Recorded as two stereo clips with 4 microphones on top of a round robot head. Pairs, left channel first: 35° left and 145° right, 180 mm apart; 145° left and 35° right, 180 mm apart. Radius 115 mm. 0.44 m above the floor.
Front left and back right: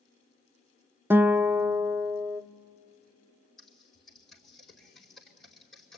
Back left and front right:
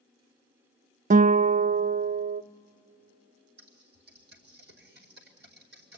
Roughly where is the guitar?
Ahead right.